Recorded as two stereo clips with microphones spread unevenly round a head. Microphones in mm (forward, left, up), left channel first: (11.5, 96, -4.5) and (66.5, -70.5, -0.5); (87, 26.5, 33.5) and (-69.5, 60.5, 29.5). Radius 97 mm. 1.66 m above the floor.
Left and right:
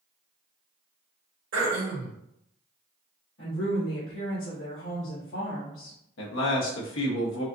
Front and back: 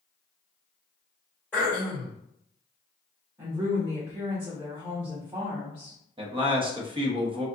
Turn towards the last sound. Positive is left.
turn(degrees=110)